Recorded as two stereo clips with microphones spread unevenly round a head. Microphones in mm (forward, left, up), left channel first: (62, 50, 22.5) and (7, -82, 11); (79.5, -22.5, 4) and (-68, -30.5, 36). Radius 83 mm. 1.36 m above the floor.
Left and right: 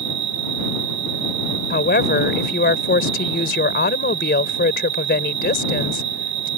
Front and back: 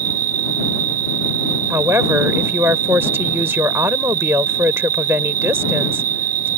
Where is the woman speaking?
105° left.